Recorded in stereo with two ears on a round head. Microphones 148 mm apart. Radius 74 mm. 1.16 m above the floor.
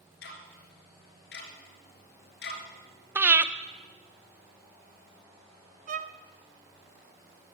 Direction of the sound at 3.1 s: 10° right (ahead or behind).